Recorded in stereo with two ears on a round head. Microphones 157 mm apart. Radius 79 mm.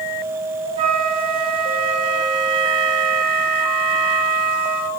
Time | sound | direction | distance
0.8 | a flute | 30° right (ahead or behind) | 0.8 m